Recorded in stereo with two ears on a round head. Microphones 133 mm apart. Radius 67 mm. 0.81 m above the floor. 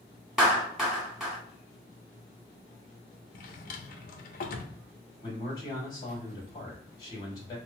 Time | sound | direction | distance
0.4 | a clap | 5° right (ahead or behind) | 0.9 m
3.3 | a drawer | 60° left (ahead or behind) | 0.6 m
5.2 | a man speaking | 30° left (ahead or behind) | 1.9 m